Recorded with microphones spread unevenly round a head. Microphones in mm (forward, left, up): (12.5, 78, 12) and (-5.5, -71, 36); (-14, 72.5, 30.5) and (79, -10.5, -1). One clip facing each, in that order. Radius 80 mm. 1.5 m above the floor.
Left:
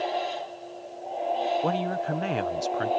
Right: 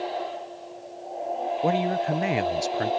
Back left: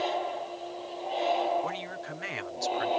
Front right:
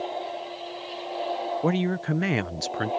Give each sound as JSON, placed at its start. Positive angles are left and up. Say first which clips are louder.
{"t": 1.6, "sound": "a woman speaking", "louder": "right 3 dB, front right 10 dB", "azimuth_deg": -20}